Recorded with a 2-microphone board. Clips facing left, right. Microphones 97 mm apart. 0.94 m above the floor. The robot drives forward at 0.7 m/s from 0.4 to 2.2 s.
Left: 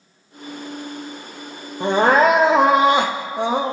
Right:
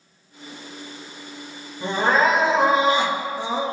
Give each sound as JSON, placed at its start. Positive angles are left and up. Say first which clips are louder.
{"t": 1.8, "sound": "crying", "louder": "left 5 dB", "side_deg": 60, "distance_m": 0.8}